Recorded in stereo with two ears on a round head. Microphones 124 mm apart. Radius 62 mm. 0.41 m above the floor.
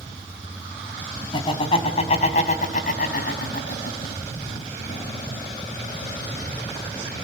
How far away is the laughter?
About 3.5 m.